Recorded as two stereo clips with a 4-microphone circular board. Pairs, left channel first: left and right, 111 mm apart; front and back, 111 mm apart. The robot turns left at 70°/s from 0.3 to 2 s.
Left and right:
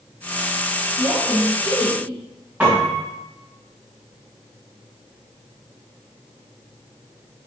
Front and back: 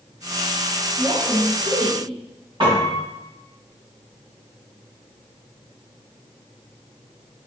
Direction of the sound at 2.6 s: 160° right.